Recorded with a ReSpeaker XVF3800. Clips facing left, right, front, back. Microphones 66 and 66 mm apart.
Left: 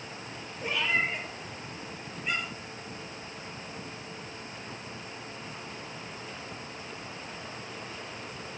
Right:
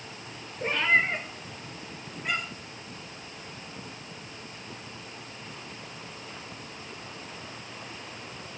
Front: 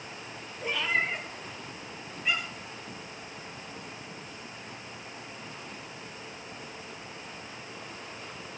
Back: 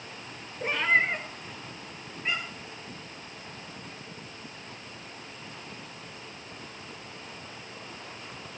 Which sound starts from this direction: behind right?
A cat meowing, at 0.6 s.